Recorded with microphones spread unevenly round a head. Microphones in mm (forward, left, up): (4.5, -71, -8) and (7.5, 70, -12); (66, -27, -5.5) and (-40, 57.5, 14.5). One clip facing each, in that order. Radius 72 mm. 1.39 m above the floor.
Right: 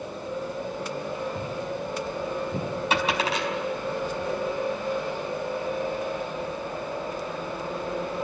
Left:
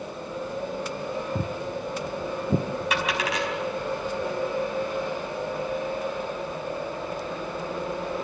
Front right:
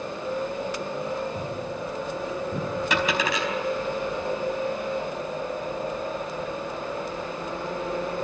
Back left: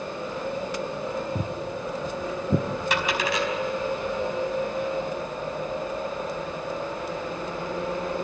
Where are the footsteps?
110° left, 1.7 m; by 2.7 s 120° left, 2.5 m.